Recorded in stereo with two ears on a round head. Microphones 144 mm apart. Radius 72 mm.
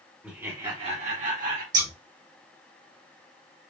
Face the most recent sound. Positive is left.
turn(degrees=-30)  # may be behind; listen again after turning